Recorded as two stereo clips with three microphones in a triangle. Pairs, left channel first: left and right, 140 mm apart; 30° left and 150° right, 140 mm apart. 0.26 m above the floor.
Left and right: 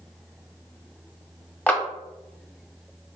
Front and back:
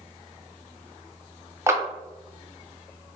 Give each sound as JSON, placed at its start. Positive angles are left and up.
{"t": 1.7, "sound": "a clap", "azimuth_deg": 160, "distance_m": 0.9}